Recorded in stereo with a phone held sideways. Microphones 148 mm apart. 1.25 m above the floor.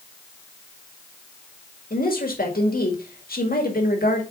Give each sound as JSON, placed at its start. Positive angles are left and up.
{"t": 1.9, "sound": "a woman speaking", "side_deg": 85, "distance_m": 2.0}